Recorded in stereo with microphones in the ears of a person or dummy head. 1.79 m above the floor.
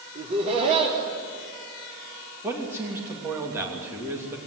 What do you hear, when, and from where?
0.1 s laughter: 40° right (ahead or behind), 3.5 m
2.4 s a man speaking: 15° right (ahead or behind), 3 m